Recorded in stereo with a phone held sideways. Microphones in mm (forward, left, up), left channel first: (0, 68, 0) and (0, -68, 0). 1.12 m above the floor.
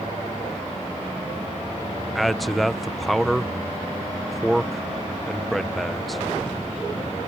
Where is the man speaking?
Centre (ahead or behind).